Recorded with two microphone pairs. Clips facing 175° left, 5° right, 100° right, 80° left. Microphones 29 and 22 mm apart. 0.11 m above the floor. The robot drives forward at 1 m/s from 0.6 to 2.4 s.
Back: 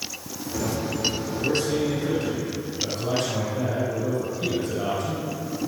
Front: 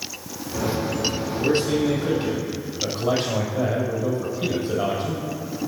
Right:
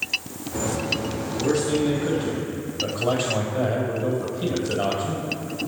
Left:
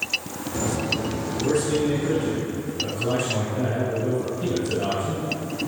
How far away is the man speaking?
About 4.5 m.